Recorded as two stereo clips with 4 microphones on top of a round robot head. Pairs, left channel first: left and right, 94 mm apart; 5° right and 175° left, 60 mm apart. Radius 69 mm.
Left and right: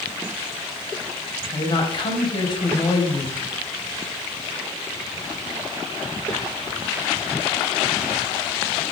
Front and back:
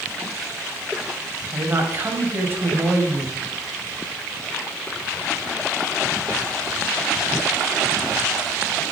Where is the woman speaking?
125° left, 4 m.